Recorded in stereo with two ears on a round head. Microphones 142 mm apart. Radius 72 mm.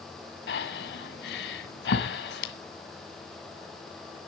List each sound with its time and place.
0.5 s breathing: 75° left (ahead or behind), 1.9 m